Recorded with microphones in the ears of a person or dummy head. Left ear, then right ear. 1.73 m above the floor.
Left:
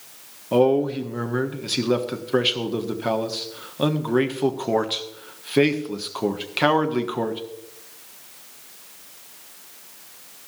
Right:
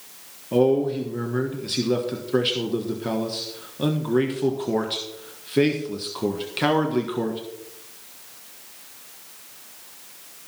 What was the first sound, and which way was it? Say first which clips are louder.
A man speaking: left 1 dB; 30° left (ahead or behind).